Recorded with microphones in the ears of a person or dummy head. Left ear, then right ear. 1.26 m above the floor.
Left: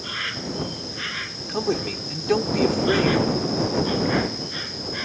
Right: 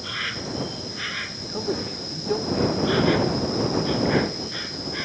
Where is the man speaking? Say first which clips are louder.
Left 4 dB; 80° left.